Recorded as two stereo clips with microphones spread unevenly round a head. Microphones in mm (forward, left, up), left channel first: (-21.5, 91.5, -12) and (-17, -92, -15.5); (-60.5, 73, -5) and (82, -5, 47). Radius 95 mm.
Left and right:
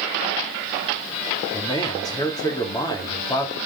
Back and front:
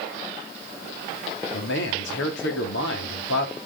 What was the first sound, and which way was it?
A man speaking, 160° left.